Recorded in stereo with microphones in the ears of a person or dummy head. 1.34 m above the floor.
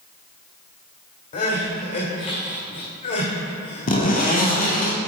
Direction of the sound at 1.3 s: 35° left (ahead or behind).